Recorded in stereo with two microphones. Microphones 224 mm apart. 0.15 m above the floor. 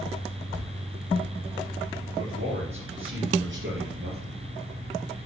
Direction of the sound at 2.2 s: 70° right (ahead or behind).